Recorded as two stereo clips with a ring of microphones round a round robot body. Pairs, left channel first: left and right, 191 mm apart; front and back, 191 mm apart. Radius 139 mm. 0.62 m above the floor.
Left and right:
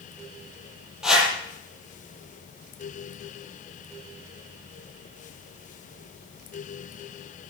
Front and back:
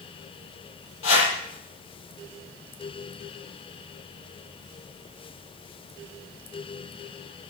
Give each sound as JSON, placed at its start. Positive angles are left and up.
{"t": 1.0, "sound": "a whoosh", "azimuth_deg": -5, "distance_m": 8.0}